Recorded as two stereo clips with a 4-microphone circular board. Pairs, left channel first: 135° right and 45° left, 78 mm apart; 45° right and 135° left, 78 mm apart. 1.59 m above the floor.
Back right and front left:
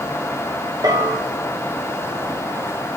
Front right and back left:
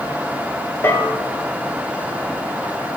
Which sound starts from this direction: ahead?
A bell, at 0.8 s.